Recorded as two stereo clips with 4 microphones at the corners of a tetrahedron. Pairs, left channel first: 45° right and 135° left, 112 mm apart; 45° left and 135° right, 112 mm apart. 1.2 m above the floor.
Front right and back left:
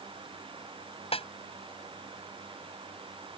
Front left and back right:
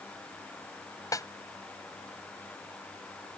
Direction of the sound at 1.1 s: 15° right.